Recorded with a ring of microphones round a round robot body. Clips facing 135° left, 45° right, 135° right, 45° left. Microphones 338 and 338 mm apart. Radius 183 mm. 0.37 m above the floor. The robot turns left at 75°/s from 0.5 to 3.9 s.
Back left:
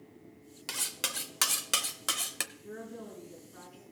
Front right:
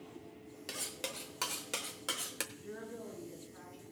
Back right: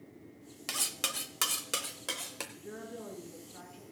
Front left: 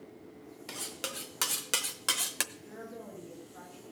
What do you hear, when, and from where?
0.7 s cutlery clinking: 170° right, 0.7 m; by 2.4 s 60° left, 0.7 m
2.5 s a woman speaking: 120° right, 6 m; by 3.8 s 145° left, 6 m